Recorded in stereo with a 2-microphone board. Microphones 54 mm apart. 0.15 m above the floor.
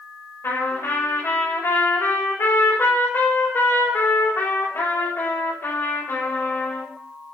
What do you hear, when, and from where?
0.4 s a trumpet: 50° left (ahead or behind), 7 m